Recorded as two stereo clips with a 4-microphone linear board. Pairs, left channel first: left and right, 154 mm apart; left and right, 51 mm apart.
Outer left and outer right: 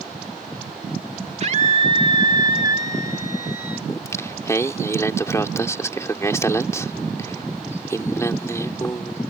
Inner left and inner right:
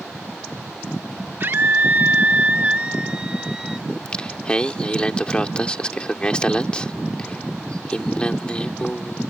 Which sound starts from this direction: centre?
Singing, at 3.9 s.